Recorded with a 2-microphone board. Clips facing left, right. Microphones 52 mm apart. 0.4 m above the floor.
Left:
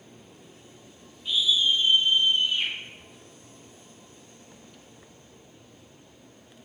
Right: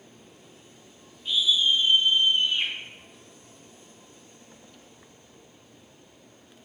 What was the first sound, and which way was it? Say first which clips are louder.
A scream: right 1 dB; centre (ahead or behind).